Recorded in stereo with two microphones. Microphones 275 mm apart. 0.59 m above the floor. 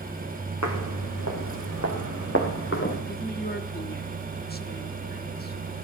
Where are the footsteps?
80° left, 2.5 m; by 3.0 s 45° left (ahead or behind), 3.5 m.